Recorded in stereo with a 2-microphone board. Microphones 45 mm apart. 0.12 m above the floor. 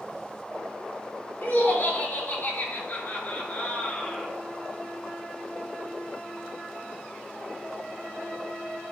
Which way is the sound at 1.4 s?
55° left (ahead or behind).